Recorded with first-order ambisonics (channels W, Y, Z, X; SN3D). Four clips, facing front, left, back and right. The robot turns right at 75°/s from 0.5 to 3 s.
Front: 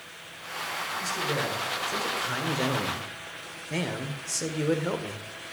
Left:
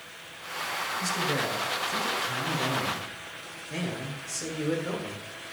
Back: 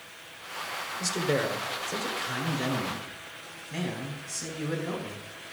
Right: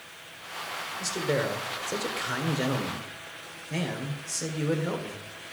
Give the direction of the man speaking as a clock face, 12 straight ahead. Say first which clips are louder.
Right 2 dB, back 3 dB; 5 o'clock.